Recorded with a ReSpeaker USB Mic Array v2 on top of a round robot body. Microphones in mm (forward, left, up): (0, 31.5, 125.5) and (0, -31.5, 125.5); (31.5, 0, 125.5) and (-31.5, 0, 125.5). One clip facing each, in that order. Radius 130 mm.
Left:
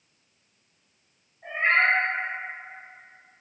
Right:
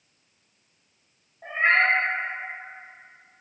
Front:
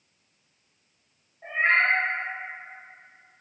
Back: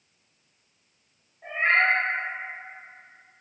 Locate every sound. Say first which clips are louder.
1.4 s a cat meowing: right 1 dB, even; 75° right, 1.8 m